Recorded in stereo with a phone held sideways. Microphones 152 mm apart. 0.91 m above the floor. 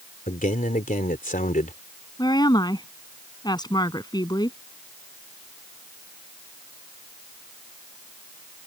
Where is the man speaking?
60° left (ahead or behind).